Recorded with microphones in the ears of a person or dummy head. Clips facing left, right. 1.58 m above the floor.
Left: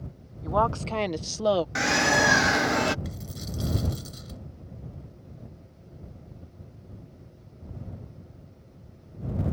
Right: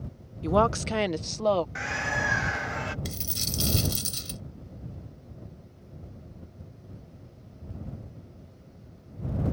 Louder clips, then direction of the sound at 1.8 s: Left 9 dB; 60° left (ahead or behind).